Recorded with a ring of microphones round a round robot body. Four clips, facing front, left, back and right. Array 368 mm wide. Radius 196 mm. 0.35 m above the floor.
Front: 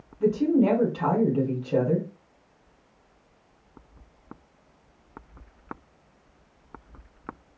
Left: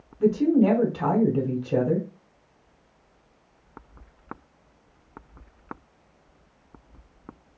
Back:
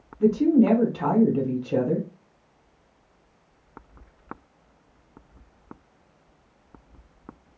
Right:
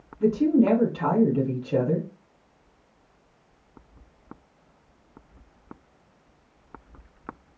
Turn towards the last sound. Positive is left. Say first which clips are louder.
# even, back 3 dB
turn(degrees=135)